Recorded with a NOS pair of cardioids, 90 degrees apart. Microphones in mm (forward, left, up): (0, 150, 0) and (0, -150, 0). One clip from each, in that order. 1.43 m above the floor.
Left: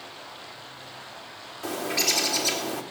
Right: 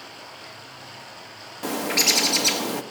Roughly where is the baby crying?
No baby crying in this recording.